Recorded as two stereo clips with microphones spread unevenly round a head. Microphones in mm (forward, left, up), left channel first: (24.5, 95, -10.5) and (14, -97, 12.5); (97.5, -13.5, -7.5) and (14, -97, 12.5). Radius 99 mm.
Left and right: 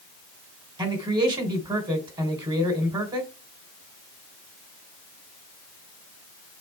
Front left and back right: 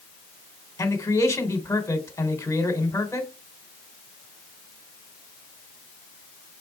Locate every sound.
0.8 s a man speaking: 25° right, 3 m